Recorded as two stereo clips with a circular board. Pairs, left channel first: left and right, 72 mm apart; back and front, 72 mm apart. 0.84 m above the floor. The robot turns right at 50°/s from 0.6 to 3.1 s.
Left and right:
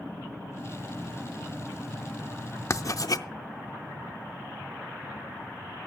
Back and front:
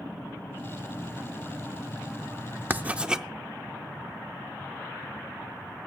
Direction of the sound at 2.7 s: 55° left.